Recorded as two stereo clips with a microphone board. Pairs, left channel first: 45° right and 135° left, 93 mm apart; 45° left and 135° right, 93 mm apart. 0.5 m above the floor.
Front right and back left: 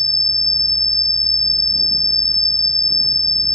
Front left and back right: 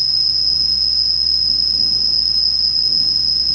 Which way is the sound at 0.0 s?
175° right.